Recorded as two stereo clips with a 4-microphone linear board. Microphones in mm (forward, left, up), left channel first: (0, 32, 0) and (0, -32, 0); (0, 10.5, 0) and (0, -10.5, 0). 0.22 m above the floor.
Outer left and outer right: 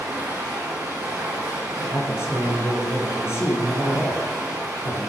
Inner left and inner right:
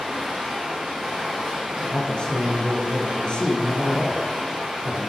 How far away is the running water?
About 5 m.